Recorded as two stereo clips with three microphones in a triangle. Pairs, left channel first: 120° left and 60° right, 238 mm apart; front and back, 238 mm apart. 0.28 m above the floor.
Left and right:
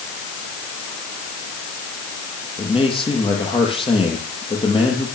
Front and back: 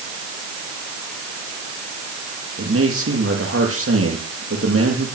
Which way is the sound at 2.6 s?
175° right.